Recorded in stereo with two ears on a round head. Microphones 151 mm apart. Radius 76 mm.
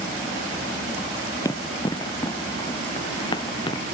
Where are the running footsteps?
20° left (ahead or behind); by 3.8 s 30° left (ahead or behind).